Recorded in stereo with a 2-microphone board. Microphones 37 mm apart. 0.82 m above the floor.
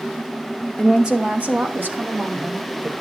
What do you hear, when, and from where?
0.8 s a woman speaking: centre (ahead or behind), 1.1 m; by 2.9 s 60° right (ahead or behind), 3 m